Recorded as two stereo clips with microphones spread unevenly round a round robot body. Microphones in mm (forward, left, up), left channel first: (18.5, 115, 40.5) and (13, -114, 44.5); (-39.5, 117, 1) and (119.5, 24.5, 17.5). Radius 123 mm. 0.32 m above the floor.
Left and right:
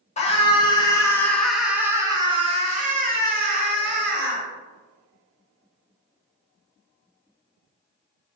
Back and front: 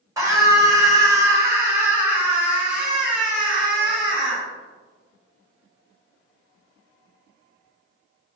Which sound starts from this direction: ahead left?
A scream, at 0.2 s.